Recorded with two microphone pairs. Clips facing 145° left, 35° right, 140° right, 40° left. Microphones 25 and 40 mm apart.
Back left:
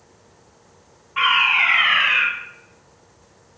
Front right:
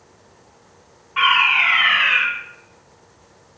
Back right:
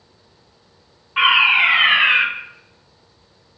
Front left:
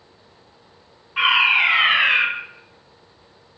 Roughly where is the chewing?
No chewing in this recording.